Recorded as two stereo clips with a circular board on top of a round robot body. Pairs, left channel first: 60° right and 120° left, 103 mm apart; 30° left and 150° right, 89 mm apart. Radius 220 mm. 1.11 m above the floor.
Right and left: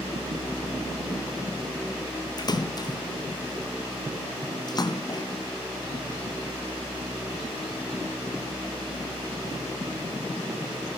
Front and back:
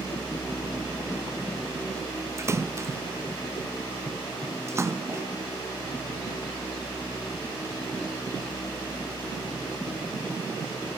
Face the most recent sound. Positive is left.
turn(degrees=-100)